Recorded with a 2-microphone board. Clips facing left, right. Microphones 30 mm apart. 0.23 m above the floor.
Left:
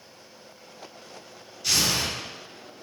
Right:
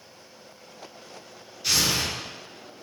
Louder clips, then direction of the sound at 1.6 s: Even; 15° right (ahead or behind).